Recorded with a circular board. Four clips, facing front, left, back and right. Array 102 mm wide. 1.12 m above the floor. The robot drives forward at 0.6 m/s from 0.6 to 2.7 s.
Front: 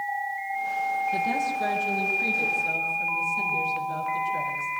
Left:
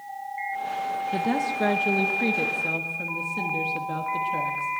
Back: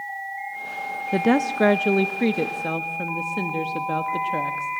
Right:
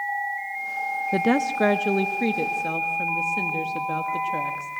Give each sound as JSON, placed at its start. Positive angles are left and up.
{"t": 1.1, "sound": "a woman speaking", "azimuth_deg": -145, "distance_m": 0.6}